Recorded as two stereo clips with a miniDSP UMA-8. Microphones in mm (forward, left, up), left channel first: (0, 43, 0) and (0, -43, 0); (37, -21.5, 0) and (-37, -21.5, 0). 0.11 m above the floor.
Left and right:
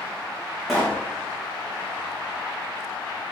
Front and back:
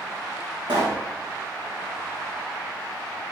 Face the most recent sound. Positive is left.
turn(degrees=180)